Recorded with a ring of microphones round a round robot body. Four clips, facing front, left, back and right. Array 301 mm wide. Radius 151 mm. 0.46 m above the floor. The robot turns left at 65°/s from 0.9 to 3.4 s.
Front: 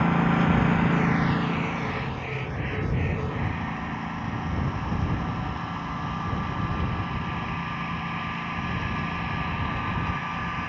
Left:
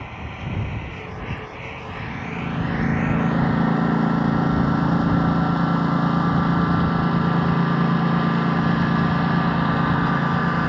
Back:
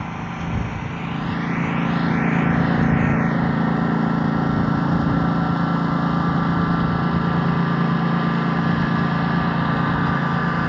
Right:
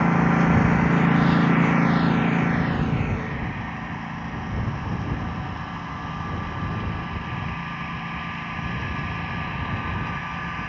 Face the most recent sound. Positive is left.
turn(degrees=135)